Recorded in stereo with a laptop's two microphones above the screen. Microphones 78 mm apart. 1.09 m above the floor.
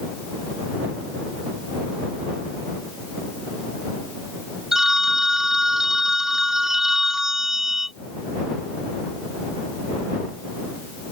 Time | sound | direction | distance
4.7 | a phone ringing | 5° right (ahead or behind) | ?